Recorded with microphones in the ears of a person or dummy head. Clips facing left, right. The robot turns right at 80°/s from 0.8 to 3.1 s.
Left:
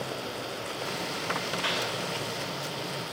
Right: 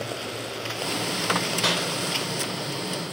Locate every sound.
1.6 s a clap: 50° right (ahead or behind), 3 m; by 1.9 s 70° right (ahead or behind), 3 m